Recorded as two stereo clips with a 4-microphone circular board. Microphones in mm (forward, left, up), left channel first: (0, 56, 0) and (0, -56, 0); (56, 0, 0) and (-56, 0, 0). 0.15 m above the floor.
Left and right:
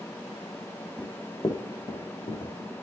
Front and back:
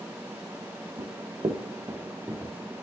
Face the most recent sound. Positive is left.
turn(degrees=95)